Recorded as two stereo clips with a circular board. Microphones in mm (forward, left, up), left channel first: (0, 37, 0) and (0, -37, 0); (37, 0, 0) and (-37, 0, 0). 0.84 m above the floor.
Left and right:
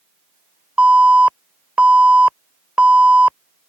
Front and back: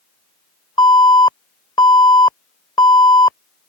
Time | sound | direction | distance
0.8 | an alarm | 15° right | ?